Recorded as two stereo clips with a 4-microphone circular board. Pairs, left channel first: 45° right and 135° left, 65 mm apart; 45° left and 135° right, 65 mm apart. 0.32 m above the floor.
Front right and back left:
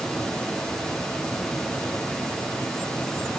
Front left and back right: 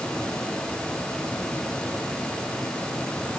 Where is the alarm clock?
I don't hear an alarm clock.